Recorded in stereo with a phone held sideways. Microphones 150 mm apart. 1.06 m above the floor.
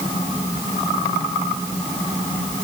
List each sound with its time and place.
Only background noise.